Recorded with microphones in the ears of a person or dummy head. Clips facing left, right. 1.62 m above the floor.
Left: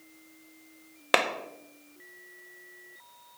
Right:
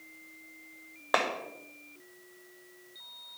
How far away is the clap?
About 0.8 m.